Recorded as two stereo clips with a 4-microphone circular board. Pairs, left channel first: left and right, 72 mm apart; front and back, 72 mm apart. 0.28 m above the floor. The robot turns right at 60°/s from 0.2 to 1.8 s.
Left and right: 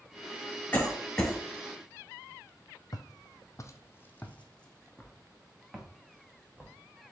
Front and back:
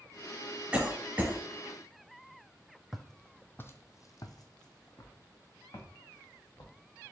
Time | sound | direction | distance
0.7 | a cough | 130° left | 1.3 m
2.9 | footsteps | 90° left | 0.6 m